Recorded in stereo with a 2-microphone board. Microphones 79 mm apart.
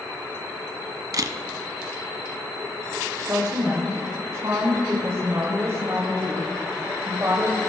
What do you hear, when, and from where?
1.1 s a camera shutter: 50° right (ahead or behind), 0.6 m
3.2 s a woman speaking: 40° right (ahead or behind), 1.4 m